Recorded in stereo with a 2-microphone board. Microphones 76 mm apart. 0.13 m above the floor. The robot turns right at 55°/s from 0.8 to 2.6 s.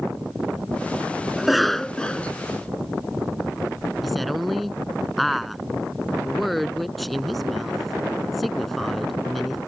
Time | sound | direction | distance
1.4 | a cough | 5° right (ahead or behind) | ?
4.0 | a woman speaking | centre (ahead or behind) | ?